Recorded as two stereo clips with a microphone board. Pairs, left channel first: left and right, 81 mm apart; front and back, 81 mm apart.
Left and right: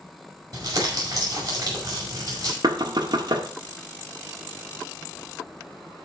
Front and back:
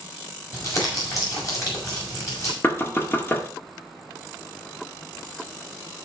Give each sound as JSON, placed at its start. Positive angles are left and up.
{"t": 0.5, "sound": "crumpling", "azimuth_deg": -50, "distance_m": 5.5}
{"t": 2.6, "sound": "knocking", "azimuth_deg": -65, "distance_m": 1.5}